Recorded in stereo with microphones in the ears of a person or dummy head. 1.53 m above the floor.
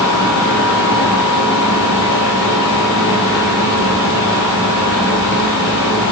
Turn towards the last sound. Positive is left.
turn(degrees=65)  # may be behind; listen again after turning